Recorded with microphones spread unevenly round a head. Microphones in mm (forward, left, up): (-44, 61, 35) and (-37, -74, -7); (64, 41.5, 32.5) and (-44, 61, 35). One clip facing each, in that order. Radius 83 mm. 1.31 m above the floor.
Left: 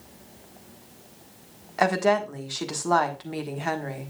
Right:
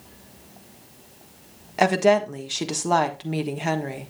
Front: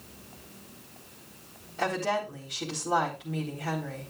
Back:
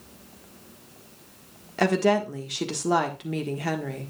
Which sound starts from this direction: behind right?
A woman speaking, at 1.8 s.